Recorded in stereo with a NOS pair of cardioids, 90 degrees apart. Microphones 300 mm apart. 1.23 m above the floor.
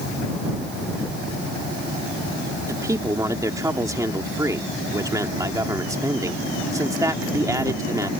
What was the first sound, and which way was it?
A man speaking, 10° right.